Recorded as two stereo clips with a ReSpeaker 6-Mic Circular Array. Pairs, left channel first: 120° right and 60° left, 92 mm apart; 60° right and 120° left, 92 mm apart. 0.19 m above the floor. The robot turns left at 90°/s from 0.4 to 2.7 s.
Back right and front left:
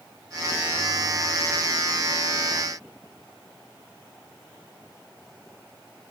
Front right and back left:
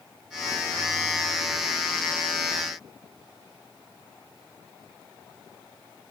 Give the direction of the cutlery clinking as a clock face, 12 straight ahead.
I don't hear cutlery clinking.